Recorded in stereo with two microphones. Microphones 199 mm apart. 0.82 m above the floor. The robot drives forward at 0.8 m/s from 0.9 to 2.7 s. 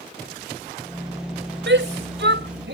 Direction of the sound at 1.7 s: 80° right.